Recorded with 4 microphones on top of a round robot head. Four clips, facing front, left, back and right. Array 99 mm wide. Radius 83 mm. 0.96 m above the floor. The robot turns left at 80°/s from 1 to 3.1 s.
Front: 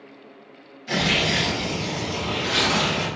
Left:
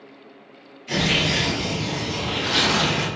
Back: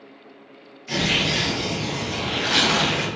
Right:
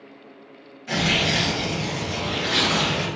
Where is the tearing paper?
60° right, 1.0 m; by 3.1 s 135° left, 1.0 m.